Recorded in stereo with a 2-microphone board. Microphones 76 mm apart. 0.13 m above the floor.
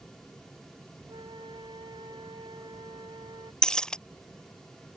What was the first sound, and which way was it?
A flute, 80° right.